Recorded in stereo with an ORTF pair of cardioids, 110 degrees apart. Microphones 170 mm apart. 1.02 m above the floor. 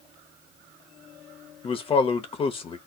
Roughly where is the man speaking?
Ahead left.